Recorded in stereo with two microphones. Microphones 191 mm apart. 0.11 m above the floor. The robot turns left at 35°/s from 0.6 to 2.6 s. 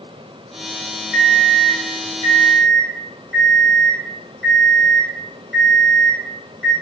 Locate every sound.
1.1 s an alarm clock: 50° left, 1.4 m; by 6.7 s 5° right, 1.4 m